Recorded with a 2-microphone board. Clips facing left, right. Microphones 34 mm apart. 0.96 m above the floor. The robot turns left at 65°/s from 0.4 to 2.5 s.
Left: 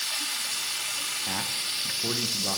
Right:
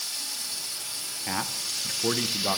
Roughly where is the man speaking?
Centre.